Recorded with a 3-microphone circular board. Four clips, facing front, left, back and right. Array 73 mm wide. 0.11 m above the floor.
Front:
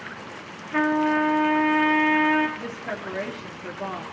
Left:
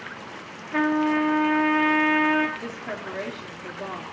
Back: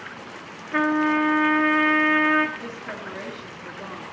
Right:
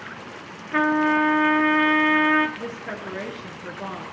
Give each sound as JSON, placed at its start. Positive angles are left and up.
{"t": 0.7, "sound": "a trumpet", "azimuth_deg": -130, "distance_m": 1.3}
{"t": 2.6, "sound": "a woman speaking", "azimuth_deg": -55, "distance_m": 1.5}